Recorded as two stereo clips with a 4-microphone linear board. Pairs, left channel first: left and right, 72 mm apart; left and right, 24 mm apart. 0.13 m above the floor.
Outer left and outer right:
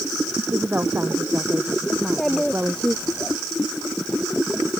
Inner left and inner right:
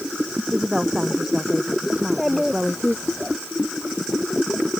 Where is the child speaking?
5° left (ahead or behind).